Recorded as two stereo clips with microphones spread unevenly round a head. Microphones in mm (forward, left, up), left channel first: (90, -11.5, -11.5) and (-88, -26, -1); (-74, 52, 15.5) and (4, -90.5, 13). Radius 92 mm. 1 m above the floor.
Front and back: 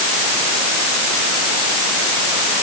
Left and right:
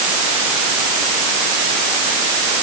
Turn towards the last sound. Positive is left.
No sound to turn to.